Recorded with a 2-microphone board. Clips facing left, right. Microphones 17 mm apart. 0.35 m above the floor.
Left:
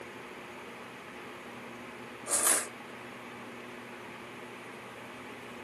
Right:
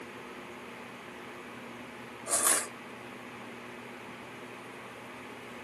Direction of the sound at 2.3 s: 15° right (ahead or behind).